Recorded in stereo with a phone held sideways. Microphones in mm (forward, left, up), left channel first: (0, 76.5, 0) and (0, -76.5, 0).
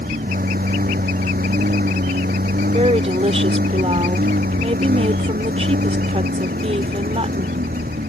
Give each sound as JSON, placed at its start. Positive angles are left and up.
{"t": 0.0, "sound": "a lawn mower", "side_deg": -75}
{"t": 2.7, "sound": "a woman speaking", "side_deg": -45}